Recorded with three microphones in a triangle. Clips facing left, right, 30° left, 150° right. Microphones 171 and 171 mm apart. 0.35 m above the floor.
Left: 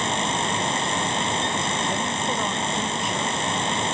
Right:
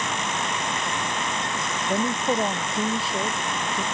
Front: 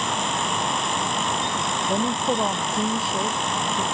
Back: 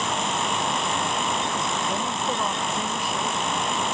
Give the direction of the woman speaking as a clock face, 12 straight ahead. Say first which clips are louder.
Right 3 dB, front 4 dB; 1 o'clock.